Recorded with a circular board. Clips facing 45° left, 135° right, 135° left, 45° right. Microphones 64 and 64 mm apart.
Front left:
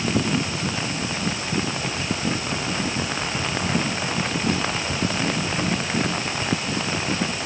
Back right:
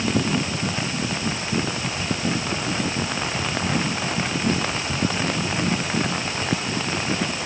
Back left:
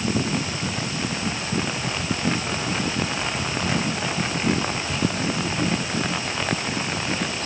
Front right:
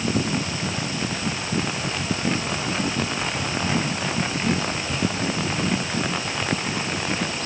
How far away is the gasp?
No gasp in this recording.